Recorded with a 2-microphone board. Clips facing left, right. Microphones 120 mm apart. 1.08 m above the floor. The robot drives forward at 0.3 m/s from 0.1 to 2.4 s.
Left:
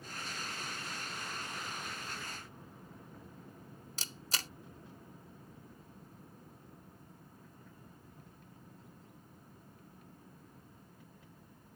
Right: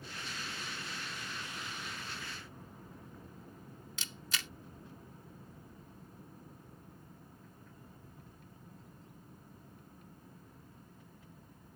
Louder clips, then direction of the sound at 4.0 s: Left 1 dB; 35° left (ahead or behind).